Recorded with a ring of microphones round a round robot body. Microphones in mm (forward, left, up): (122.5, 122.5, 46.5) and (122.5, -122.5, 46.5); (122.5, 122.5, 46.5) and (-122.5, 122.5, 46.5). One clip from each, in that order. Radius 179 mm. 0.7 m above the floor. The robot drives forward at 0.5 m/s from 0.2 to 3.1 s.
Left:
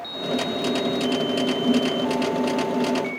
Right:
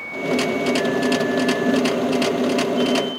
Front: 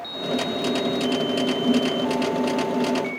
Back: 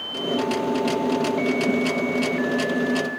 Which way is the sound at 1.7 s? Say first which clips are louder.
Even, front 2 dB; 110° right.